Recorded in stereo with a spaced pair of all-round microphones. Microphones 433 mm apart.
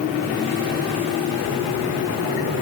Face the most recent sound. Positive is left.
No sound to turn to.